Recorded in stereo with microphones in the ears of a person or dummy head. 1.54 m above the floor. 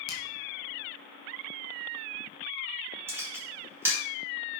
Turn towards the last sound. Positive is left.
turn(degrees=-15)  # may be behind; listen again after turning